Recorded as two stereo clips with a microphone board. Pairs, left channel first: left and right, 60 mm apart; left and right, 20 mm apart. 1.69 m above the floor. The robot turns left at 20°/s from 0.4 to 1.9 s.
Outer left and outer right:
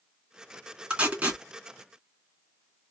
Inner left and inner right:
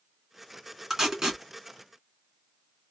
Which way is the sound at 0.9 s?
20° right (ahead or behind).